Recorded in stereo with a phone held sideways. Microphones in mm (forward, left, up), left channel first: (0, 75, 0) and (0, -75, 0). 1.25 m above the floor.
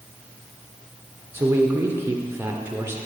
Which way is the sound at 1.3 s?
15° right (ahead or behind).